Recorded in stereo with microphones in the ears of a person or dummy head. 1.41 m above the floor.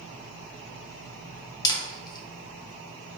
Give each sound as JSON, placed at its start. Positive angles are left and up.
{"t": 1.6, "sound": "a camera shutter", "side_deg": 25, "distance_m": 0.6}